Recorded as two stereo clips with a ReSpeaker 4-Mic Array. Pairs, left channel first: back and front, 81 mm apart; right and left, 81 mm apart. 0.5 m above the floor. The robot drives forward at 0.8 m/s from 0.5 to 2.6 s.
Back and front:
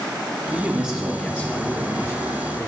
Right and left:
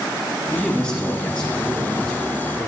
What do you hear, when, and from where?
0.5 s a man speaking: 20° right, 1.1 m; by 2.7 s 170° right, 1.6 m